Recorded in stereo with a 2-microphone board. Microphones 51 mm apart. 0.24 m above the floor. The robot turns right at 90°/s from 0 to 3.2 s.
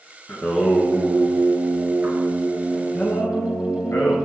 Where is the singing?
155° left, 0.8 m; by 4.2 s 55° left, 0.8 m.